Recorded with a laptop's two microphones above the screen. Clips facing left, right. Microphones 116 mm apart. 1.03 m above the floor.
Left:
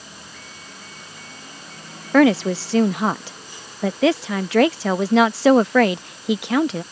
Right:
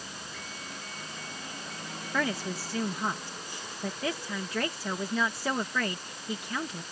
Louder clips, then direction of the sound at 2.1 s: Left 17 dB; 80° left.